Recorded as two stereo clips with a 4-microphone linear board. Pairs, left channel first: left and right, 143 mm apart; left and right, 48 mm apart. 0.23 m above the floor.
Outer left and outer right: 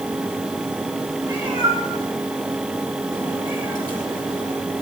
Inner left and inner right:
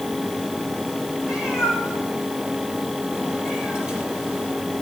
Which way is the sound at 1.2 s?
25° right (ahead or behind).